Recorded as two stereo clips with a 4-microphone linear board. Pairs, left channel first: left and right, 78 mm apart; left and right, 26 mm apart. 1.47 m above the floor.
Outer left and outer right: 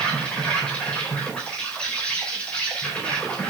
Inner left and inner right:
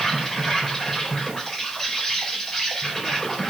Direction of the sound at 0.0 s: 15° left (ahead or behind).